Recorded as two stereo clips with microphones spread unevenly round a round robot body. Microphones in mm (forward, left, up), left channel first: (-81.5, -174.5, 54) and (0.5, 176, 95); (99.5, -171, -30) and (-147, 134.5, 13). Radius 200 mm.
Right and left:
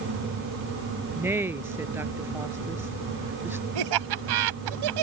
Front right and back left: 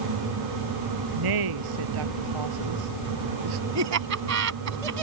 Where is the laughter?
75° left.